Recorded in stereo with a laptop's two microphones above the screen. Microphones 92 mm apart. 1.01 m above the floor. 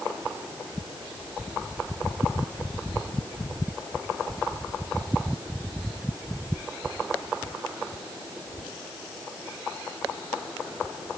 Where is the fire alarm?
I don't hear a fire alarm.